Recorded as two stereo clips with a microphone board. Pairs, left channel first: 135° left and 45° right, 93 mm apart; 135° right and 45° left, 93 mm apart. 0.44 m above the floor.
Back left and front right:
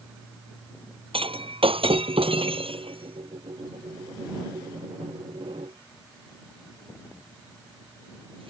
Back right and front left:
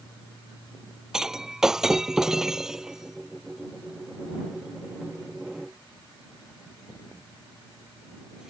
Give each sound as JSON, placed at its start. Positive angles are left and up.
{"t": 1.1, "sound": "breaking glass", "azimuth_deg": -40}